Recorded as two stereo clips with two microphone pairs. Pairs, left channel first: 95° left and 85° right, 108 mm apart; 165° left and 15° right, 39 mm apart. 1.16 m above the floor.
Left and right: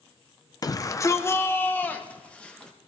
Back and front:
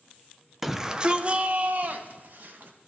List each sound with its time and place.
0.6 s a shout: 70° left, 0.8 m; by 2.7 s 15° left, 1.8 m